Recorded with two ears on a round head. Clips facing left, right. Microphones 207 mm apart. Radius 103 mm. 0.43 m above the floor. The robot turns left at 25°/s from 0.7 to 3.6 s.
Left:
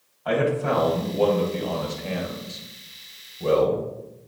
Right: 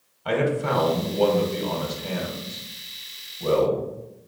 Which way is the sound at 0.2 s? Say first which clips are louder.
Left 1 dB; 135° right.